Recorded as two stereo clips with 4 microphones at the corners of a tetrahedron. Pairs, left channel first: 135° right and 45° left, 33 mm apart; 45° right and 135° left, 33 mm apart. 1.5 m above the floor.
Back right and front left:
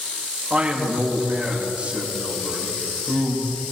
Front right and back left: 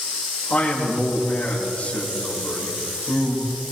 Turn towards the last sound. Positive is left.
turn(degrees=0)